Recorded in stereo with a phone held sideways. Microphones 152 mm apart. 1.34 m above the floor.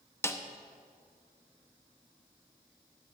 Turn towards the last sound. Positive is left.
turn(degrees=15)  # may be behind; listen again after turning